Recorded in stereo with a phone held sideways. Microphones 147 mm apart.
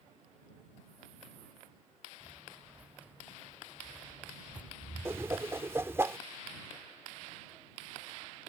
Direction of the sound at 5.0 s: 20° right (ahead or behind).